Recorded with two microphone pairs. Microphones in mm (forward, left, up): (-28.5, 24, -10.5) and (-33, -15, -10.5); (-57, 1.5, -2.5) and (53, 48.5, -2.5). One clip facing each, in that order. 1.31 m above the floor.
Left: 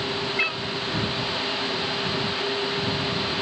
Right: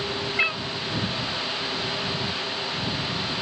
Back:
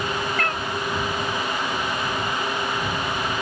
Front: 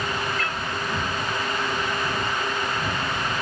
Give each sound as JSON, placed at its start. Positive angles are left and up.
{"t": 0.4, "sound": "a cat meowing", "azimuth_deg": -175}